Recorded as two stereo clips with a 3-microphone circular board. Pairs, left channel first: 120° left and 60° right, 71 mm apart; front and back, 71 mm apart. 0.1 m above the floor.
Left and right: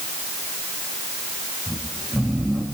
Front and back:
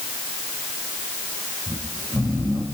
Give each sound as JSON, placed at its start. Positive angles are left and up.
{"t": 1.7, "sound": "snoring", "azimuth_deg": -150, "distance_m": 8.5}